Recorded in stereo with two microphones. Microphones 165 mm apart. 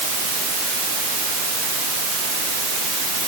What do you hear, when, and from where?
Only background noise.